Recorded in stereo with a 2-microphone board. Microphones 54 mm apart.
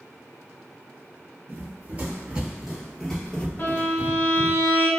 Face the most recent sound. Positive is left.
turn(degrees=50)  # may be behind; listen again after turning